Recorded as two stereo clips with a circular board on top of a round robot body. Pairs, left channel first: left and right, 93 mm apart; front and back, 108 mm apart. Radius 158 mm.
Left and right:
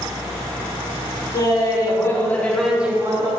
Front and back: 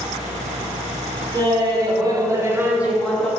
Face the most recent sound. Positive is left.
turn(degrees=-75)